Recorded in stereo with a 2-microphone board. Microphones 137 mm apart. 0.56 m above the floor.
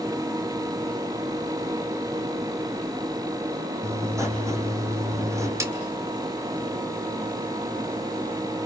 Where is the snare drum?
20° right (ahead or behind), 2.5 m.